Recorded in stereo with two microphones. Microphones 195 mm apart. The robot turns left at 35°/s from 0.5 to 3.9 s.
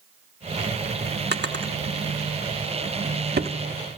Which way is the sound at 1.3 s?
55° right (ahead or behind).